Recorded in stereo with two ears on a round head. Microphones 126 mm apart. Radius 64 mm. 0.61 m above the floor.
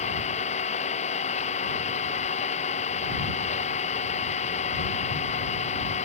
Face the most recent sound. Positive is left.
turn(degrees=50)  # may be behind; listen again after turning